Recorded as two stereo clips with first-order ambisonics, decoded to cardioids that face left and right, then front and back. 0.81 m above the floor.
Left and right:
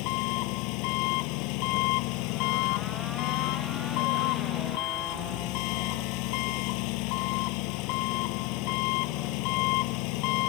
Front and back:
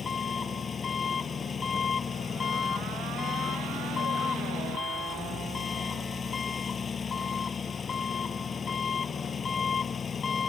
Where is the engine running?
70° left.